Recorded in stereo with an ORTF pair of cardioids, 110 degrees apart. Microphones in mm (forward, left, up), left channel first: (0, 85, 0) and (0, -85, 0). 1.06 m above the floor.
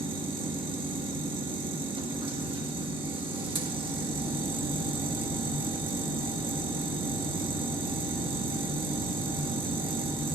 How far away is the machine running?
About 1.6 m.